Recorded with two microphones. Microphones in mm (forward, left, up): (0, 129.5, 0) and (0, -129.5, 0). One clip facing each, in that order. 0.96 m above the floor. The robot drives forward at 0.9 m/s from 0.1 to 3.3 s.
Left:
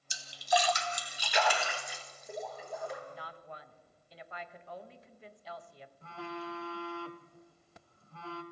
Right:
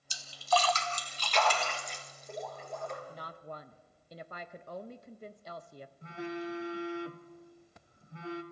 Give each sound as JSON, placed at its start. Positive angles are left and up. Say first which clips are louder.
{"t": 0.1, "sound": "a splash", "louder": "even", "side_deg": 20, "distance_m": 0.8}
{"t": 3.1, "sound": "a woman speaking", "louder": "right 2 dB", "side_deg": -40, "distance_m": 0.8}
{"t": 6.0, "sound": "a phone buzzing", "louder": "right 5 dB", "side_deg": -20, "distance_m": 0.7}